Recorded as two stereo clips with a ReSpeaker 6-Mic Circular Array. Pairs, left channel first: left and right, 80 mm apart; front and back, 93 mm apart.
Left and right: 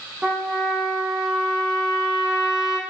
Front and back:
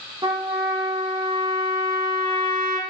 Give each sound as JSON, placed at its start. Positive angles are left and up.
{"t": 0.2, "sound": "a trumpet", "azimuth_deg": -170, "distance_m": 4.0}